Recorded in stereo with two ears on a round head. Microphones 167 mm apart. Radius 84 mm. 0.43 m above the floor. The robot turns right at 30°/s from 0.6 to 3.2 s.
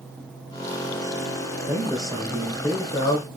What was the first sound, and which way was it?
A man speaking, 15° right.